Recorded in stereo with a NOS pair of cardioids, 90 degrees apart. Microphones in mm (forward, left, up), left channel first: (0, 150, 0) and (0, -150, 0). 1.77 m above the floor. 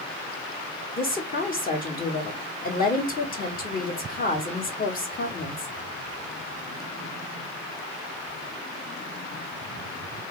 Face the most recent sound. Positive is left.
turn(degrees=30)